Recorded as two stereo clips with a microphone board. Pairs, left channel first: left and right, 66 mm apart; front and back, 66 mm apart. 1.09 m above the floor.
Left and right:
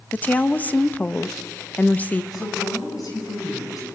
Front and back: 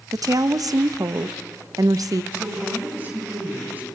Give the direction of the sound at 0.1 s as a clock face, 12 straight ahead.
7 o'clock.